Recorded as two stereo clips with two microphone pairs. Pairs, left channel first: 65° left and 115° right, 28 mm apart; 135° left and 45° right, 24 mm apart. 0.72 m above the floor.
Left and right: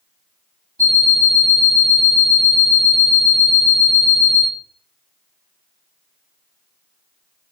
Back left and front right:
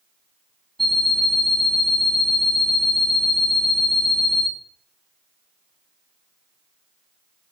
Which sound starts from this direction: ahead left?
An alarm clock, at 0.8 s.